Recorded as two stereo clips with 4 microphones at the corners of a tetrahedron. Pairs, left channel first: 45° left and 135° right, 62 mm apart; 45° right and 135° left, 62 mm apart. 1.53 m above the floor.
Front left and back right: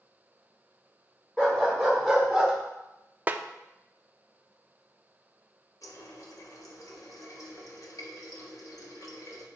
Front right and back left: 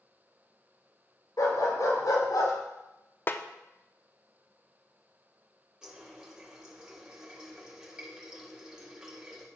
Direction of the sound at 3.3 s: 85° right.